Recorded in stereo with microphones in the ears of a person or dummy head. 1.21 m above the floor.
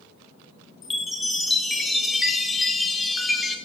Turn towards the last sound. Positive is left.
turn(degrees=0)  # may be behind; listen again after turning